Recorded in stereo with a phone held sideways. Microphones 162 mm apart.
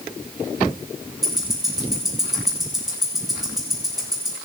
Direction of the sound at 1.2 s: 5° right (ahead or behind).